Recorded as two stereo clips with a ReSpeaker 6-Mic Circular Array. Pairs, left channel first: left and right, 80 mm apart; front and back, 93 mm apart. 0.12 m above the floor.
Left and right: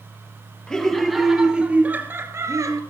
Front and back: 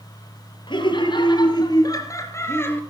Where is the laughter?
10° left, 3 m; by 2.8 s 60° right, 2.5 m.